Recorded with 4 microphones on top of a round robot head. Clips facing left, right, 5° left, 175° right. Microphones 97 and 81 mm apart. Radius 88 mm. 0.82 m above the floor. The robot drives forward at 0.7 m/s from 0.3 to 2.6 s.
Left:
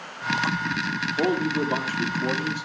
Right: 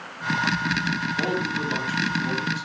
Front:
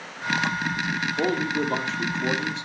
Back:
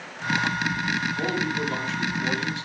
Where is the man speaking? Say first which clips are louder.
Left 7 dB, front 2 dB; 45° left, 2 m; by 2.6 s 70° left, 1.7 m.